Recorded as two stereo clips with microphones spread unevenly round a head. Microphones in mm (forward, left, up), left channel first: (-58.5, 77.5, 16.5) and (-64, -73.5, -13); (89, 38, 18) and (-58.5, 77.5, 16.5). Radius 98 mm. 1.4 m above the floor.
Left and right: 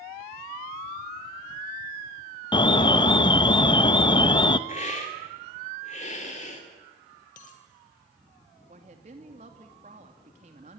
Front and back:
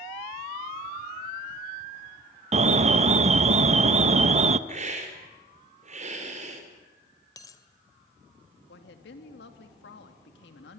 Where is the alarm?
130° left, 0.9 m.